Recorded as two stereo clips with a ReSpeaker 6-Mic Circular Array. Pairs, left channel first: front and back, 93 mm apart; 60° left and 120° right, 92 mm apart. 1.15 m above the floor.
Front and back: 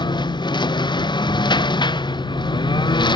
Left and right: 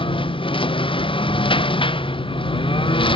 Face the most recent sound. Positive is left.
turn(degrees=35)